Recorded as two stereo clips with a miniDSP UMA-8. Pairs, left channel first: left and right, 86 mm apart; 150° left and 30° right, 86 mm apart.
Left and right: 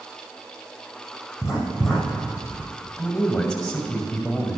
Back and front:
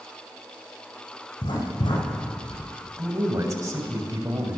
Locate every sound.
1.4 s writing: 175° right, 6 m
3.0 s a man speaking: 5° left, 3 m